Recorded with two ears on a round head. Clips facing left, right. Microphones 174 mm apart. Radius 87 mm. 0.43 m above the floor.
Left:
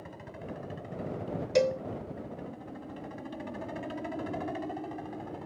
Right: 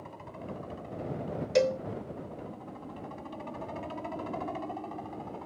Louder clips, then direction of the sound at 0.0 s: Even; 15° left (ahead or behind).